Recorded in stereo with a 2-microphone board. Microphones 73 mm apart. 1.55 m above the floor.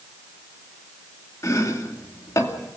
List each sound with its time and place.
1.4 s chopping: 45° left (ahead or behind), 2.5 m